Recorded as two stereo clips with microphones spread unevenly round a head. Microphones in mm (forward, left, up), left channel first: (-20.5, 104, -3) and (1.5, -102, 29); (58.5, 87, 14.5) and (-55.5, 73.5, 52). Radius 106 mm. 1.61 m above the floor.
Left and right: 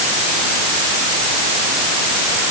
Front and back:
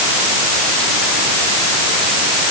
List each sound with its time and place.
Only background noise.